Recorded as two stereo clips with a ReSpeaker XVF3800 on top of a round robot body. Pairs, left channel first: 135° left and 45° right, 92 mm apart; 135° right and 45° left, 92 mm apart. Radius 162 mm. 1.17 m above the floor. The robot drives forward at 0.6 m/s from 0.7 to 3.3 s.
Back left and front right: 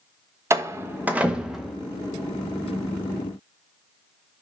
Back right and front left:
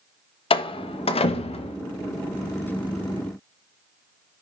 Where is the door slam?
105° right, 1.0 m; by 1.8 s 135° right, 1.4 m.